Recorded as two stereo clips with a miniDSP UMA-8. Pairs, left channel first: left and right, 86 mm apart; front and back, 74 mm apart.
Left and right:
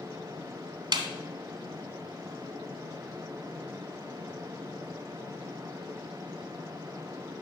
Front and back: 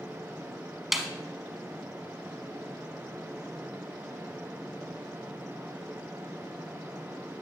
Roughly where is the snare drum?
Right.